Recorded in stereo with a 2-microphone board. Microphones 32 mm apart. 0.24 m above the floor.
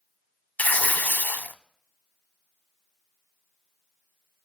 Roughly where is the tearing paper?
Left.